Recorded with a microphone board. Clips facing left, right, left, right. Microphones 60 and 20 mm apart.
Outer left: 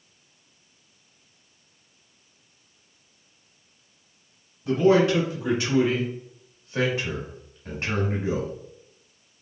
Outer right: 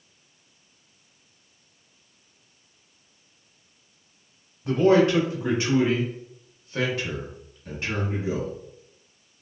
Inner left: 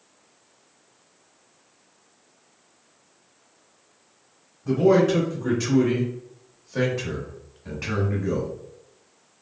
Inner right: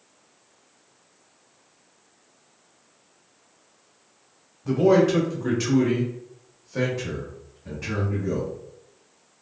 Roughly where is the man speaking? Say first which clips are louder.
Even, even; right.